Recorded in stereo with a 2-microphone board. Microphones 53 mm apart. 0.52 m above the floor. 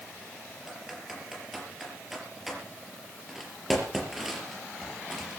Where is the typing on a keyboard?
5° right (ahead or behind), 5 m.